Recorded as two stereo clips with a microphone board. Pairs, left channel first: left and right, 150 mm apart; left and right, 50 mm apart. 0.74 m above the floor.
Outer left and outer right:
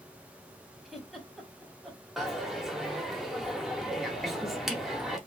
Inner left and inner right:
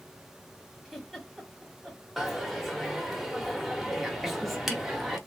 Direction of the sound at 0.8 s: Centre (ahead or behind).